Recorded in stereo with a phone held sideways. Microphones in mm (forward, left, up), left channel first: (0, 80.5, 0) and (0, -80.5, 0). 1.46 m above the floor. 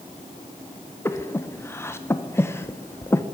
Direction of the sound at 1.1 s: 15° left (ahead or behind).